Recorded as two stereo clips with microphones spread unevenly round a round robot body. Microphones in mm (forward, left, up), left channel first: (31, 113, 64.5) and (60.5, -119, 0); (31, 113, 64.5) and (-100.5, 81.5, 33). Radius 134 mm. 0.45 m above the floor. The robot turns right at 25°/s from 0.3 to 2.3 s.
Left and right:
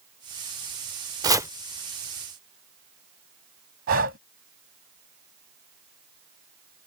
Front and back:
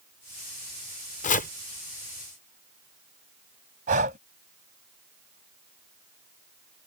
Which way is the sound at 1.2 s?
20° right.